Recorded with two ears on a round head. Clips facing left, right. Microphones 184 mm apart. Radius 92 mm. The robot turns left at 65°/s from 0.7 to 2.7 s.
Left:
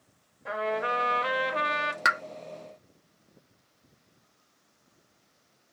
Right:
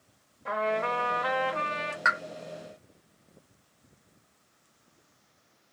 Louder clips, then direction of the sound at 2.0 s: Even; 45° left (ahead or behind).